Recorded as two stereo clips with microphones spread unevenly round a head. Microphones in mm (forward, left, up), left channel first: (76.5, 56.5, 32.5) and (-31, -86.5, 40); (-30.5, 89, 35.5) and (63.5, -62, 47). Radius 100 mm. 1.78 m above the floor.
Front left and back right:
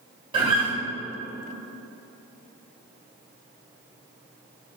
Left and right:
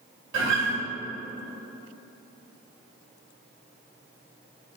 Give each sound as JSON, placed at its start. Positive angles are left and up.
{"t": 0.3, "sound": "a guitar", "azimuth_deg": -70, "distance_m": 2.0}